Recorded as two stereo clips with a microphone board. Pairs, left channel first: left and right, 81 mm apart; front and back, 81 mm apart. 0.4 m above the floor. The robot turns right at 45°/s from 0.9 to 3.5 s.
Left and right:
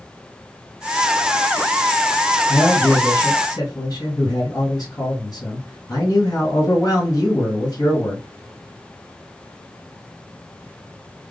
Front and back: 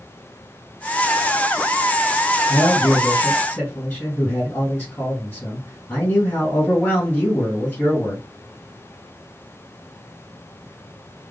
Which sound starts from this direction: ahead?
A man speaking, at 2.5 s.